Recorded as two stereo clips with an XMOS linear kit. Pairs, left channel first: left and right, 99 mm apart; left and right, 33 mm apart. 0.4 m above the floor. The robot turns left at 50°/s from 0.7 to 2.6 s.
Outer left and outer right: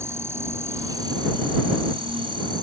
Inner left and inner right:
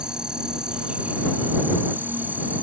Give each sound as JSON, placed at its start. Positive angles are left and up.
{"t": 0.0, "sound": "an insect", "azimuth_deg": -30}